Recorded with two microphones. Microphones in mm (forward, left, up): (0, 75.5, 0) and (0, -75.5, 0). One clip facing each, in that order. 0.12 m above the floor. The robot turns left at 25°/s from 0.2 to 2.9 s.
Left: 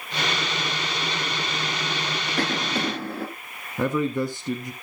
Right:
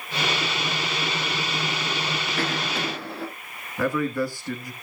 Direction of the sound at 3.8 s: 20° left (ahead or behind).